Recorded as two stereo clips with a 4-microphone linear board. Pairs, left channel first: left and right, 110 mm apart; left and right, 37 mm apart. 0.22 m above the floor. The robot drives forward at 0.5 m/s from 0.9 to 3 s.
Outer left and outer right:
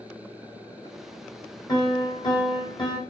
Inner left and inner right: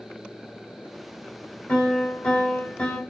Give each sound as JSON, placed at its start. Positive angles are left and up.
{"t": 1.7, "sound": "a piano", "side_deg": 40, "distance_m": 3.5}